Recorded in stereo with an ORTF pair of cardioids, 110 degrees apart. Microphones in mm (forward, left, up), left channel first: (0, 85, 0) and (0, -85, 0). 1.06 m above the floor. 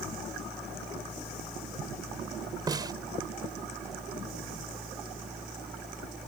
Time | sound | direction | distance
0.0 | a fan | straight ahead | ?
2.7 | a snare drum | 25° right | ?